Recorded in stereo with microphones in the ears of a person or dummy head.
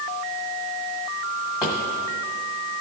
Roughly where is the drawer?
Left.